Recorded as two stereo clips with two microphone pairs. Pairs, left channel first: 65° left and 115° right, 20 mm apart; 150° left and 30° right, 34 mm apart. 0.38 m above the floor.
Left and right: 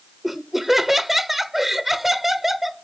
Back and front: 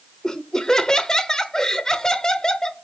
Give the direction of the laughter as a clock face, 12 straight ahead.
6 o'clock.